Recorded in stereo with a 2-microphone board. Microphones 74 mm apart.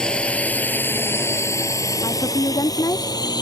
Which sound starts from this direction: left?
A woman speaking, at 2.0 s.